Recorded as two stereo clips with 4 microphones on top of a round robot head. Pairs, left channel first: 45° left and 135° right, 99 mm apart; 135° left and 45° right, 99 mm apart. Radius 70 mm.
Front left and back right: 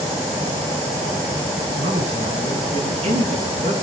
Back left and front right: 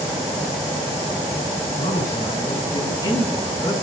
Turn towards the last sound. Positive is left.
turn(degrees=-165)